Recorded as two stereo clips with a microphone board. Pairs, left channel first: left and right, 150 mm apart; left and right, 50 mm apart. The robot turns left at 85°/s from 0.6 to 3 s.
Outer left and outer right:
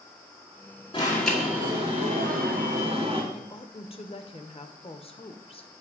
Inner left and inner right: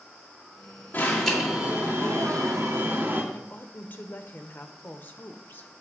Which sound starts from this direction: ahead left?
An alarm, at 0.9 s.